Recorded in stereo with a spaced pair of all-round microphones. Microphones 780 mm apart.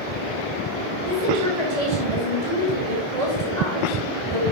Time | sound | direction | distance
1.1 | a woman speaking | 60° right (ahead or behind) | 6.5 m